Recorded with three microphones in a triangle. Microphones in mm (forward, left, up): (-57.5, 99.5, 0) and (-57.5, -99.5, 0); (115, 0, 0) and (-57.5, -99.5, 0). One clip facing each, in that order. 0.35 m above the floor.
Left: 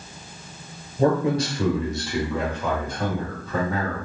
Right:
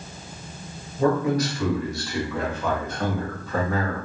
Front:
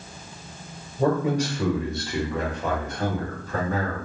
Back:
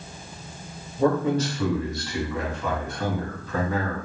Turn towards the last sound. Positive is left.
turn(degrees=0)